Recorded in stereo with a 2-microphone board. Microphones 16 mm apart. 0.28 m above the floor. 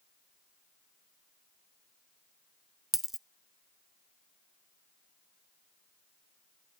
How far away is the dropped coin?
About 0.5 m.